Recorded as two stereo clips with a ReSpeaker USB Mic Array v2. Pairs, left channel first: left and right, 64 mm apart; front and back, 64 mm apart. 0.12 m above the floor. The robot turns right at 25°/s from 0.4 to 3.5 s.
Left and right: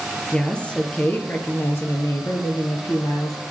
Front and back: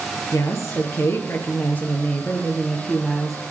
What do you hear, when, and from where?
0.3 s a woman speaking: 15° left, 2.5 m; by 3.4 s 90° left, 2.5 m